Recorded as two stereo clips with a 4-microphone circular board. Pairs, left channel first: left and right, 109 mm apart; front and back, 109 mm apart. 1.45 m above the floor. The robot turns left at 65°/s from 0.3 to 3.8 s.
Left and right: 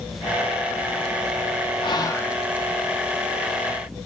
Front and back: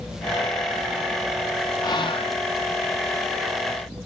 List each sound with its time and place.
1.8 s whispering: 50° left, 0.8 m; by 2.4 s 15° left, 0.8 m